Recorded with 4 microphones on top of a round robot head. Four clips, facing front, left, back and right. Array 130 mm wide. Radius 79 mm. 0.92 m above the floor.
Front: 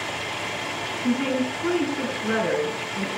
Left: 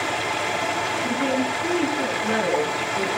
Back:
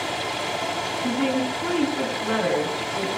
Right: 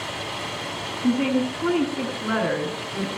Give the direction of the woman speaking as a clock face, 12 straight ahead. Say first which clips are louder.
Right 5 dB, front 1 dB; 4 o'clock.